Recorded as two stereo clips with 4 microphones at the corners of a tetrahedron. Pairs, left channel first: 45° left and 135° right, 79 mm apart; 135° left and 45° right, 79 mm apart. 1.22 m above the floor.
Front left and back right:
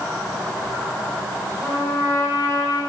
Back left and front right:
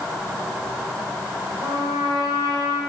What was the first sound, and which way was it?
A trumpet, 65° right.